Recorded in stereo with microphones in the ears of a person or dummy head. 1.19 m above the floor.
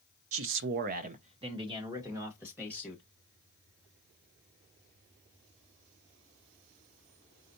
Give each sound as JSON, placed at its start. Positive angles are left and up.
{"t": 0.3, "sound": "a man speaking", "side_deg": -65, "distance_m": 0.7}